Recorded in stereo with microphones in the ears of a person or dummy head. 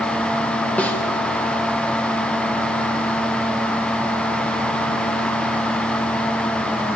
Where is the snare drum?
5° left (ahead or behind), 1.7 m.